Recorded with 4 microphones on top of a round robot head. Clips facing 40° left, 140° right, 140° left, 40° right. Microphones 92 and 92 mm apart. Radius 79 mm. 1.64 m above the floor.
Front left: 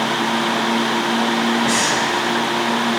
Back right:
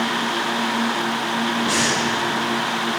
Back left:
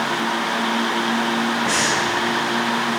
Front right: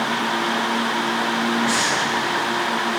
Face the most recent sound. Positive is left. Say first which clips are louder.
# front left 3 dB, back left 1 dB
turn(degrees=45)